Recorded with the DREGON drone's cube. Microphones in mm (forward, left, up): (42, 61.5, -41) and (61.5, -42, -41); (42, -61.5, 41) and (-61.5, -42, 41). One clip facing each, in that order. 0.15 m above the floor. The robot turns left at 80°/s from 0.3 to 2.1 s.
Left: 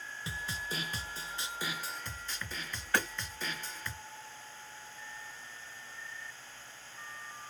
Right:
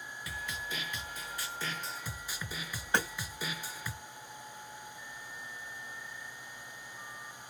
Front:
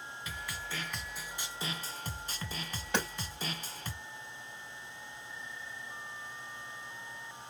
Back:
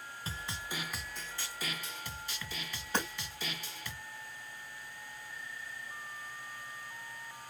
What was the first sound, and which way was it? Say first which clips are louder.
A snare drum: left 1 dB, back 1 dB; 140° left.